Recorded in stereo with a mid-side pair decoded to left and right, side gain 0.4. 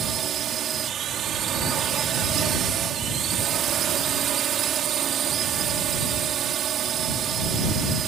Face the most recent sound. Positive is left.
turn(degrees=-65)